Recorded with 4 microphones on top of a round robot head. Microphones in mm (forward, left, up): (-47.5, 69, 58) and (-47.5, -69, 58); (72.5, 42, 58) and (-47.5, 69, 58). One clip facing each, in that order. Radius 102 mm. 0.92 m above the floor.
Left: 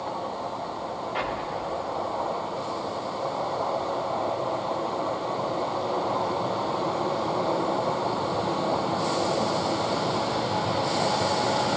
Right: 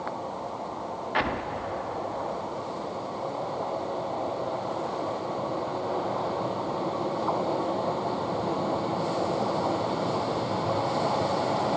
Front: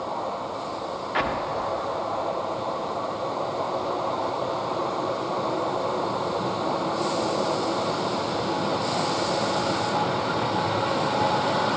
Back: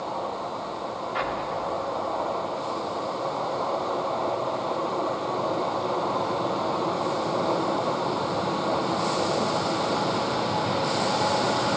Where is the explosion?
50° right, 1.0 m.